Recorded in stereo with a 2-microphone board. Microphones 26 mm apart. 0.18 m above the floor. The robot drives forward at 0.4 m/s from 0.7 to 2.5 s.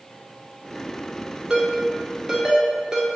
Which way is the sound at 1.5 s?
35° right (ahead or behind).